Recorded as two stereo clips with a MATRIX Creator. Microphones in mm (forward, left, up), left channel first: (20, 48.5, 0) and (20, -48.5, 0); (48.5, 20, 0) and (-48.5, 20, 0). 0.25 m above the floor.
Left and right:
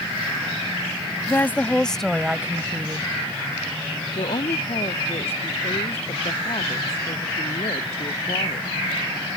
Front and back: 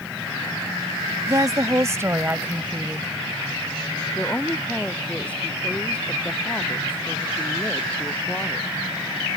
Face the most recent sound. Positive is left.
turn(degrees=75)